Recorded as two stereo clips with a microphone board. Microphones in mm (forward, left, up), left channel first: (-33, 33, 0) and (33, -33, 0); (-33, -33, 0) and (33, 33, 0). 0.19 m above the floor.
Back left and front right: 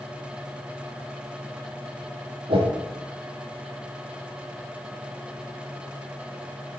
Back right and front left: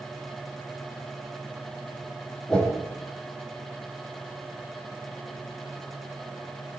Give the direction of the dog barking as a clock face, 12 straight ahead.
I don't hear a dog barking.